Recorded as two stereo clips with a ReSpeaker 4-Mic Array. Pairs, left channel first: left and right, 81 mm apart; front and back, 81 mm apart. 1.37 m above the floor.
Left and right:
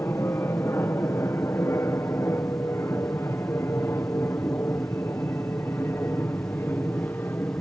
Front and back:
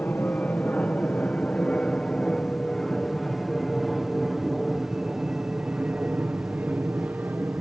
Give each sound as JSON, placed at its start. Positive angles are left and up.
{"t": 0.0, "sound": "an aircraft", "azimuth_deg": 55}